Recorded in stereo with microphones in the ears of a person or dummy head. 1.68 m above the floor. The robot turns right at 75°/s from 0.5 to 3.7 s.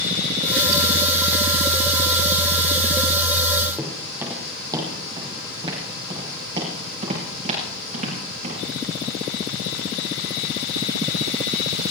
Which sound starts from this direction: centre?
Footsteps, at 3.8 s.